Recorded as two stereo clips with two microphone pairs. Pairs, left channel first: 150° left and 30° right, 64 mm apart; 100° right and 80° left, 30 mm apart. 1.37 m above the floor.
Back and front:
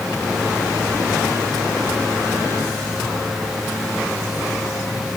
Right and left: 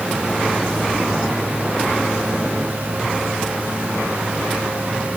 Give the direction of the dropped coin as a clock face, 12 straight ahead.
I don't hear a dropped coin.